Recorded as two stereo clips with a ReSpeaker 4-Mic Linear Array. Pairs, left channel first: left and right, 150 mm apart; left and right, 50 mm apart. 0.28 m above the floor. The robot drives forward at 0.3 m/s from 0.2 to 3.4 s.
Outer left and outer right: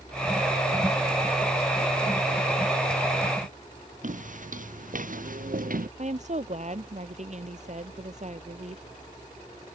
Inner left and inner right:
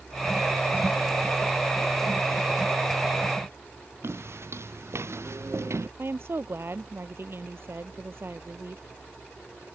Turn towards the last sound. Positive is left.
turn(degrees=-50)  # may be behind; listen again after turning